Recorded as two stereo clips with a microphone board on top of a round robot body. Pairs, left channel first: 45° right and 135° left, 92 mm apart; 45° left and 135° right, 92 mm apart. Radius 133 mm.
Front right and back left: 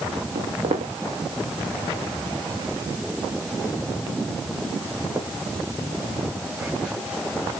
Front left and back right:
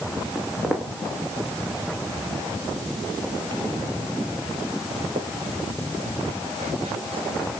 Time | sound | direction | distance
0.3 | footsteps | 140° left | 2.5 m